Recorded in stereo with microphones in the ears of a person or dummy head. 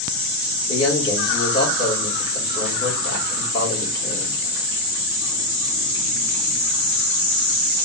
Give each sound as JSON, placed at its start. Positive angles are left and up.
{"t": 0.7, "sound": "a man speaking", "side_deg": 20, "distance_m": 2.5}